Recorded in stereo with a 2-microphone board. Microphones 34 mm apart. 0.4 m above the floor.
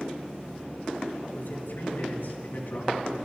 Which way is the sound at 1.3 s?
70° left (ahead or behind).